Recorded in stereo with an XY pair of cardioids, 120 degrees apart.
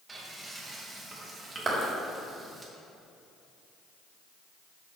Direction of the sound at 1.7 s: 30° right.